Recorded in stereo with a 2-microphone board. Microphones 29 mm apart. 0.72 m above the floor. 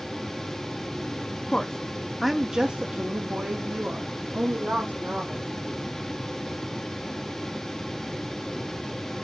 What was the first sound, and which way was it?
A woman speaking, 40° left (ahead or behind).